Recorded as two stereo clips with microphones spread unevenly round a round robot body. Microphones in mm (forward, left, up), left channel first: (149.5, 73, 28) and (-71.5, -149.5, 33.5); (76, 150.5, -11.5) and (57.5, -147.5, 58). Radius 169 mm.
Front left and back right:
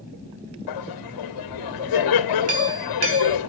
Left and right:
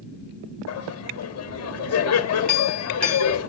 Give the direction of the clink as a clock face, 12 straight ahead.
6 o'clock.